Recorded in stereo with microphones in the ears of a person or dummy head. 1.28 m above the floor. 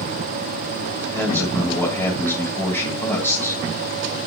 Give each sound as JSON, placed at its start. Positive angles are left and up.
{"t": 1.1, "sound": "a man speaking", "side_deg": 15, "distance_m": 3.0}